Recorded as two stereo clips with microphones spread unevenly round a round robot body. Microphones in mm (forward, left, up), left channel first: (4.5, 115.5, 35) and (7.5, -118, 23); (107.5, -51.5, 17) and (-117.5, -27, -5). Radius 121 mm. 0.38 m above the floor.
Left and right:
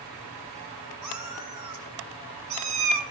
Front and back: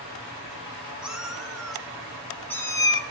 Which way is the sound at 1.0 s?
100° right.